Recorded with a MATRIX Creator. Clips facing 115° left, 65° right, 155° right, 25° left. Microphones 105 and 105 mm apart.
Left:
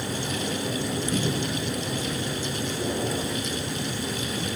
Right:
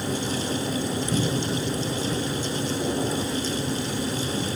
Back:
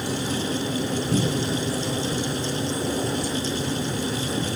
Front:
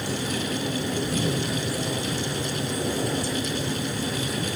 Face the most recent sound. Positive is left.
turn(degrees=-140)